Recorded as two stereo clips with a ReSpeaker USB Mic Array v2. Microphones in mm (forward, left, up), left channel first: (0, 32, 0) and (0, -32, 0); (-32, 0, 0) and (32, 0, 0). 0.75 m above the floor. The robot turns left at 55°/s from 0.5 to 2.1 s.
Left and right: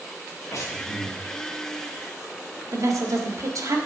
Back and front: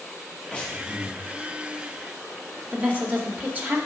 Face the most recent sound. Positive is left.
turn(degrees=-65)